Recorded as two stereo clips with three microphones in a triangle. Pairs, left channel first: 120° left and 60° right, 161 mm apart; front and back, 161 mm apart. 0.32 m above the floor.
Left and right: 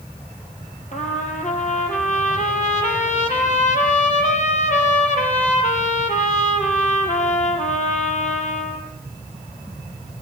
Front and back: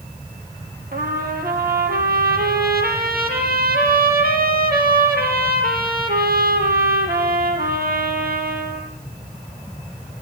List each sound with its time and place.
0.9 s a trumpet: 160° left, 4.5 m